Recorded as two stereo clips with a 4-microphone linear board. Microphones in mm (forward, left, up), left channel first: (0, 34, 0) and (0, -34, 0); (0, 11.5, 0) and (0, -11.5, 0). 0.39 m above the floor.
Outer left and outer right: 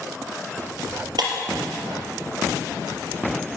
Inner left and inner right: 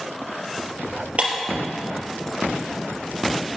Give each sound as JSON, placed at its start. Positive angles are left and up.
{"t": 1.2, "sound": "breaking glass", "side_deg": -85, "distance_m": 3.5}